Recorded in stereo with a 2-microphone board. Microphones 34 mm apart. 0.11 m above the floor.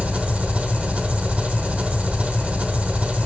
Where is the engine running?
45° right (ahead or behind), 1.0 m.